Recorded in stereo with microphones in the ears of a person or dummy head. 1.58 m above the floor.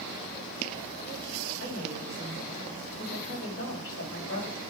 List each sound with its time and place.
1.6 s a woman speaking: 50° left (ahead or behind), 4 m